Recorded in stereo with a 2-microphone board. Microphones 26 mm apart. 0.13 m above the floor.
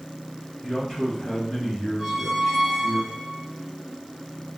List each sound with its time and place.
0.6 s a man speaking: 30° left (ahead or behind), 1.5 m
2.0 s a squeak: 15° right (ahead or behind), 0.9 m